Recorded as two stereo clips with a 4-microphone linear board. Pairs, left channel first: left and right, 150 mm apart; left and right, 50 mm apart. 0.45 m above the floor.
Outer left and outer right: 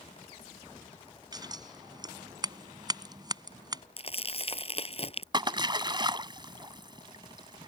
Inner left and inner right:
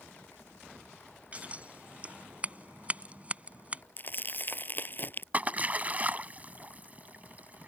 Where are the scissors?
30° right (ahead or behind).